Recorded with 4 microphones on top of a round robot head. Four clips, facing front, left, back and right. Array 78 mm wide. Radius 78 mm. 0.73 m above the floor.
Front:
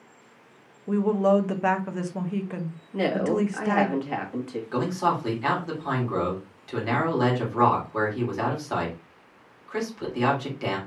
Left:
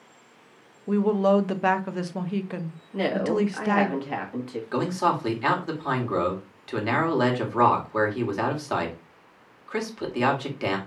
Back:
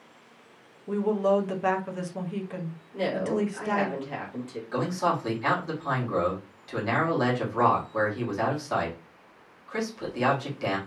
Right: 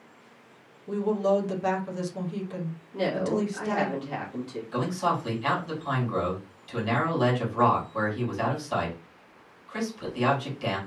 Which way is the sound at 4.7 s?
80° left.